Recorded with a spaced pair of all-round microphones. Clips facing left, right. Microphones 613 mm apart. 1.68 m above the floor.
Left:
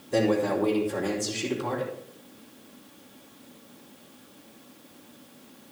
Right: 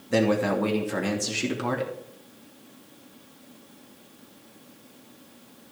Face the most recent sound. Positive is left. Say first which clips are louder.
# right 1 dB
turn(degrees=-75)  # may be behind; listen again after turning